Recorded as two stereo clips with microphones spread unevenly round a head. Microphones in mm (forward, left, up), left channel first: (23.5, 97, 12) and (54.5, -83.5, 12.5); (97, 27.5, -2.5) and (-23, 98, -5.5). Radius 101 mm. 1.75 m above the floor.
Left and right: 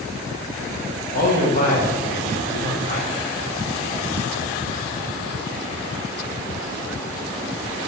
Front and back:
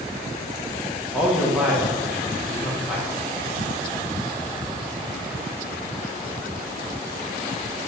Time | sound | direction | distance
1.1 | a man speaking | 65° left | 1.4 m